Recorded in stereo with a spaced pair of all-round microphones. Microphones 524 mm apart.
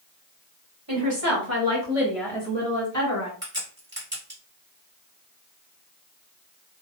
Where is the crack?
20° right (ahead or behind), 1.6 m.